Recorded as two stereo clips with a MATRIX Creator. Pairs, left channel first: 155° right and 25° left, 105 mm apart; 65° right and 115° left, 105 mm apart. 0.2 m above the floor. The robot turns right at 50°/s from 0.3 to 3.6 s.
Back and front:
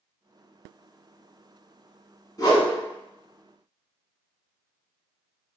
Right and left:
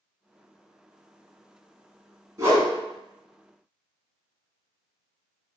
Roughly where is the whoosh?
Behind.